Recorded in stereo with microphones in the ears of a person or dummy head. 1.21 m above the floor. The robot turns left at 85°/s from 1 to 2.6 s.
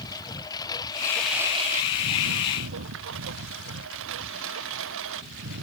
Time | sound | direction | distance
0.0 | a lawn mower | 25° left | ?